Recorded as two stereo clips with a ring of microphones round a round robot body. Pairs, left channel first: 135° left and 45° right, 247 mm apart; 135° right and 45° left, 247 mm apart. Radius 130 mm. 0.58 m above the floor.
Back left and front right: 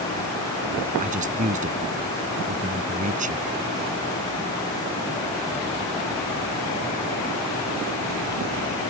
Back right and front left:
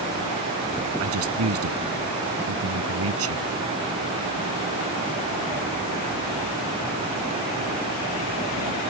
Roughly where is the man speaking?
Ahead.